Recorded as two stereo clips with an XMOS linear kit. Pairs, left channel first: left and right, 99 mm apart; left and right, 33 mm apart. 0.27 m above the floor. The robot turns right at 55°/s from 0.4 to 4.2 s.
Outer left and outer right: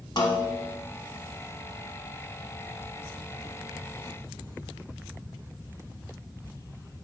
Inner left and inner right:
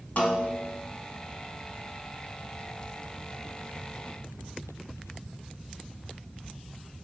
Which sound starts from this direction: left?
A snare drum, at 0.2 s.